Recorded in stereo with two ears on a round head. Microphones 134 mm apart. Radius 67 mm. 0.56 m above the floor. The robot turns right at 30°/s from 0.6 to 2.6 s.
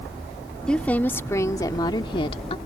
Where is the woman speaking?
10° left; by 2.6 s 65° left.